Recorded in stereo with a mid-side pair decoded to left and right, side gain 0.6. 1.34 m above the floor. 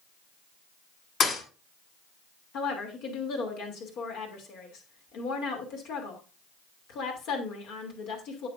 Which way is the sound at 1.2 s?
40° left.